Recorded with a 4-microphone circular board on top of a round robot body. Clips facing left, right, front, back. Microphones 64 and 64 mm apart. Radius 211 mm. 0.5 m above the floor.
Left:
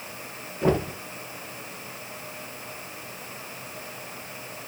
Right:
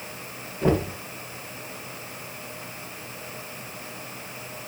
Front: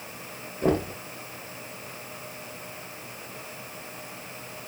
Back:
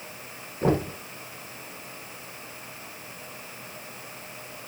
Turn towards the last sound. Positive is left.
turn(degrees=165)